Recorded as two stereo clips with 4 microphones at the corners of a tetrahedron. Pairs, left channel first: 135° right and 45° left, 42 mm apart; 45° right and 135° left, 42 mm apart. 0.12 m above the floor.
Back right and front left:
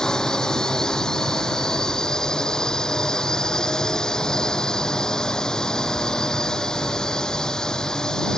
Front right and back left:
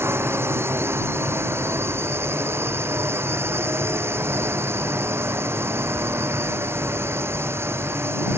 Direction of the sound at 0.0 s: 150° left.